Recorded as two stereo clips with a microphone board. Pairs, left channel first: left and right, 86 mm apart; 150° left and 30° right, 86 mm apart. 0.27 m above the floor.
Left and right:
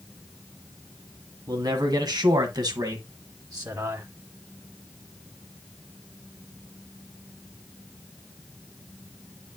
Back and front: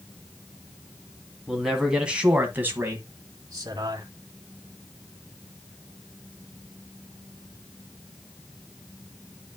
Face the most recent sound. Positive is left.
turn(degrees=-45)